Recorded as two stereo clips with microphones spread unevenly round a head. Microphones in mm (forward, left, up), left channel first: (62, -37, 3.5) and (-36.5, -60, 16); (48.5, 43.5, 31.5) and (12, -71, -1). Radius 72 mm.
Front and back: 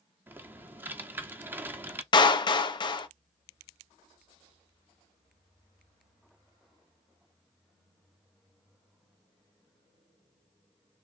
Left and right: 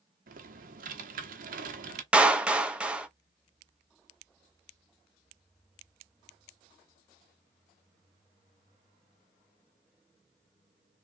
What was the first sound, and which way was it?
Typing on a keyboard, 105° right.